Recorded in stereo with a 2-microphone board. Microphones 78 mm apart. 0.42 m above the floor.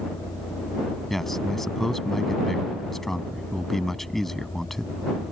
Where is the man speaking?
5° left (ahead or behind).